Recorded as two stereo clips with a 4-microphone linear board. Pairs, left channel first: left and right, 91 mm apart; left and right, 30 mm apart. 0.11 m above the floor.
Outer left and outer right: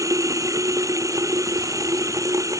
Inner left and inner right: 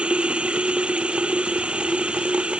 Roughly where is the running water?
Right.